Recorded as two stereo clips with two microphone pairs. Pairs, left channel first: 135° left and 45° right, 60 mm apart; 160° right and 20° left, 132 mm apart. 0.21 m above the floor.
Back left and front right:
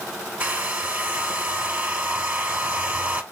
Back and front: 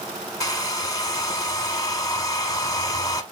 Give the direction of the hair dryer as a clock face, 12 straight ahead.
4 o'clock.